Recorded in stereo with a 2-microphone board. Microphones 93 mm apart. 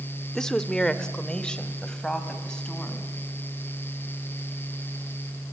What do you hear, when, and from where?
0.3 s a woman speaking: 5° left (ahead or behind), 0.9 m; by 3.1 s 10° left (ahead or behind), 3.5 m